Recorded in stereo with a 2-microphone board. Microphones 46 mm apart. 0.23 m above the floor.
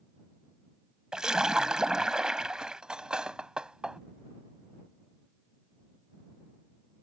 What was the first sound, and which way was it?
A splash, 15° right (ahead or behind).